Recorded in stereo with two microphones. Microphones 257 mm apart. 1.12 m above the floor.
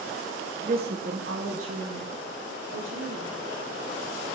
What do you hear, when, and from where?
0.6 s a woman speaking: 30° right (ahead or behind), 0.7 m; by 3.3 s 60° right (ahead or behind), 3.5 m